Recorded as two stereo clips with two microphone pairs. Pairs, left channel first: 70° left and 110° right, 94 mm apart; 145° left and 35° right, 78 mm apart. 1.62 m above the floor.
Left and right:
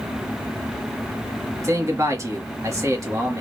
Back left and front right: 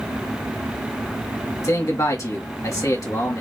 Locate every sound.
1.6 s a man speaking: 170° right, 1.5 m